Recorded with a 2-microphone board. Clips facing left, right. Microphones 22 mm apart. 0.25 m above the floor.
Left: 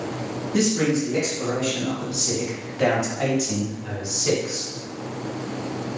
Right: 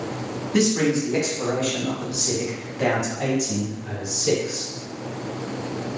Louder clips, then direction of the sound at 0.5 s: Right 1 dB; 50° right (ahead or behind).